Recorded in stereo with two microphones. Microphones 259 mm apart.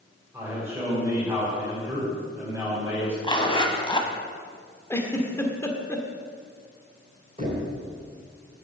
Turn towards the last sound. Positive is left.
turn(degrees=-25)  # may be behind; listen again after turning